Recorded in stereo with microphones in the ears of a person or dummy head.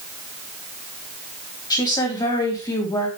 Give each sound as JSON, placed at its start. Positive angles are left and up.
{"t": 1.7, "sound": "a woman speaking", "side_deg": 20, "distance_m": 2.0}